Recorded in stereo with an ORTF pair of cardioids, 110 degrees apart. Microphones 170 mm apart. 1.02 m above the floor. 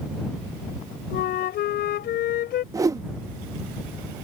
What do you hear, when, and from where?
1.1 s a flute: 65° left
2.7 s a whoosh: 20° right